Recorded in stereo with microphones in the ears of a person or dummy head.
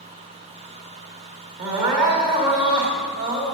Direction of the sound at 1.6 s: 35° right (ahead or behind).